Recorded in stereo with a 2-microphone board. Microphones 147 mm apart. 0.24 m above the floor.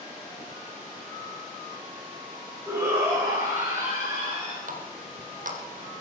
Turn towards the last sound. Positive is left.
turn(degrees=-65)  # may be behind; listen again after turning